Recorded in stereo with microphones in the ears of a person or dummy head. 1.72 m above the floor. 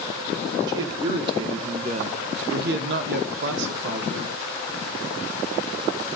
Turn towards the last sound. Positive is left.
turn(degrees=-55)  # may be behind; listen again after turning